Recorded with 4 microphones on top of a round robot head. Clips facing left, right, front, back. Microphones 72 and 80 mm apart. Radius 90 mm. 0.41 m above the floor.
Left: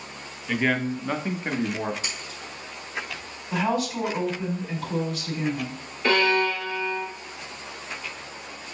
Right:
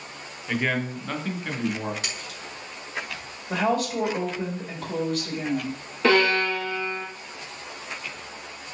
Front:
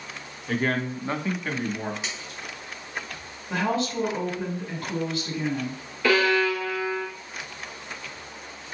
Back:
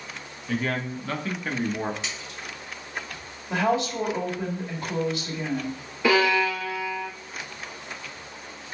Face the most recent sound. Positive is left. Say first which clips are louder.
# right 1 dB, even
turn(degrees=-105)